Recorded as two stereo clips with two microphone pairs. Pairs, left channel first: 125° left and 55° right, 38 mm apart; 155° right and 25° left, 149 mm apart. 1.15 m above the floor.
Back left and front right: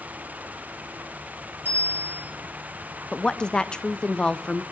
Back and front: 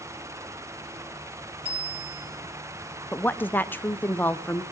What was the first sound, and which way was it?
A bicycle bell, 25° right.